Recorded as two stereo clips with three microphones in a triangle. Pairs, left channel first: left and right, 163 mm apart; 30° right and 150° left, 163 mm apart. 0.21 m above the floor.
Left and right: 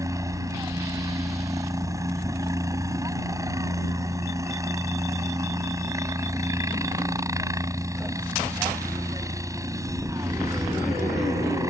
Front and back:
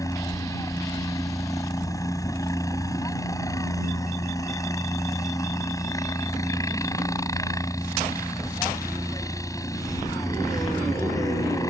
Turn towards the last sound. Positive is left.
turn(degrees=-60)